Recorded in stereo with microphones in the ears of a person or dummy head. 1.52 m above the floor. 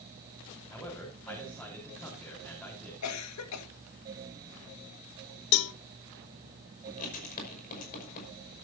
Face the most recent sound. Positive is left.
turn(degrees=40)  # may be behind; listen again after turning